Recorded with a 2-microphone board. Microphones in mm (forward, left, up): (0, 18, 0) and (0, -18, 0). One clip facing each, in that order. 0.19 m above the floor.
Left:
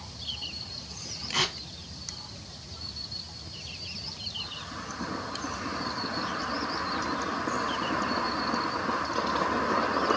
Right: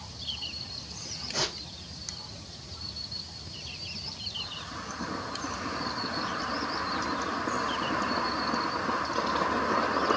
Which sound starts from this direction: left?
Tearing paper, at 1.3 s.